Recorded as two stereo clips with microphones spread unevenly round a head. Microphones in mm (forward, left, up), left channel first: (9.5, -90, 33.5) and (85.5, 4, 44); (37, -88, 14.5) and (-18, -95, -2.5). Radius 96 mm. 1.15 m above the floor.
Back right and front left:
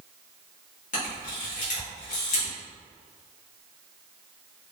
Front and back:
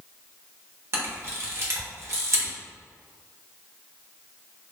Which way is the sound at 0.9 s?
130° right.